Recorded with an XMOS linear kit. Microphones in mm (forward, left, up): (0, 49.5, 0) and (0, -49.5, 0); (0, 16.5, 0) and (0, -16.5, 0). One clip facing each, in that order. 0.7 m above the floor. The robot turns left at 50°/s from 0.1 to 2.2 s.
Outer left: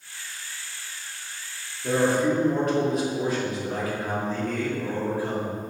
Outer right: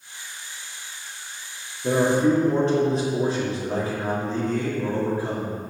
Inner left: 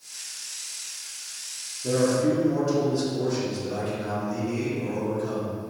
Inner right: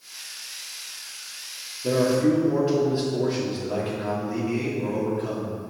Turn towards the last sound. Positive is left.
turn(degrees=-30)  # may be behind; listen again after turning